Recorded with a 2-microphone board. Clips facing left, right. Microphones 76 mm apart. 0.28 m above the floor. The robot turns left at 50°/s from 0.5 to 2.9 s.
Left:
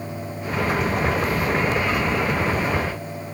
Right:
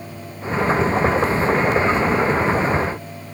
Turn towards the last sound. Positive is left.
No sound to turn to.